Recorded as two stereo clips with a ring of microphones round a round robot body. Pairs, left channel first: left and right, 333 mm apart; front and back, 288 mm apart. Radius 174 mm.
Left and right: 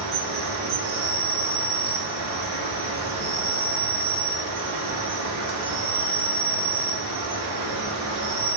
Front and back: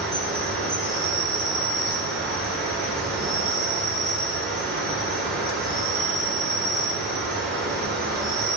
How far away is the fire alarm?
I don't hear a fire alarm.